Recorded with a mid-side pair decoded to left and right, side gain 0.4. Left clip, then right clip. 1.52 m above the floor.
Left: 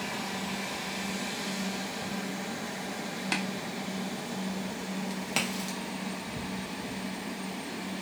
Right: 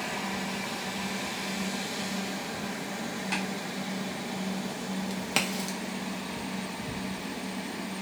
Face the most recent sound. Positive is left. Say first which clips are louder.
# right 2 dB
turn(degrees=-20)